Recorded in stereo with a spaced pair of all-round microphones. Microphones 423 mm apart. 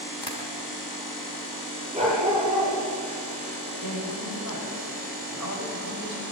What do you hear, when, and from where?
0.2 s tapping: 70° left (ahead or behind), 4 m
1.9 s a dog barking: 15° right (ahead or behind), 9.5 m
3.8 s a woman speaking: 45° left (ahead or behind), 7 m